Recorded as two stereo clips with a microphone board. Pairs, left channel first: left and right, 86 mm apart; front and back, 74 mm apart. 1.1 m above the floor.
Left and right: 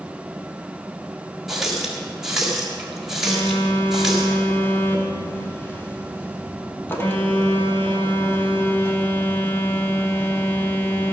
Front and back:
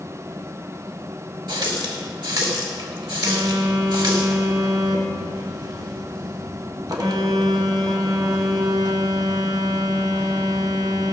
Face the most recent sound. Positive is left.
turn(degrees=155)